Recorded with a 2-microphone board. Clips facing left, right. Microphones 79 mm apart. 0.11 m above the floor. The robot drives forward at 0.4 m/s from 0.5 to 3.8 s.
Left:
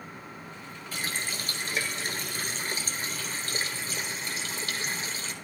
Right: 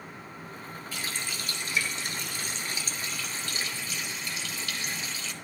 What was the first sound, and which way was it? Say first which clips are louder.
A running tap: left 3 dB; 40° left (ahead or behind).